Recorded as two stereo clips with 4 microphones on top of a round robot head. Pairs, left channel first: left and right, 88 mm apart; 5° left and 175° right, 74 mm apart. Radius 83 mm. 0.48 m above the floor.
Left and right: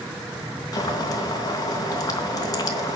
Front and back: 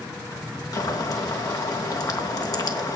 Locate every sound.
0.7 s boiling: 45° left, 3.5 m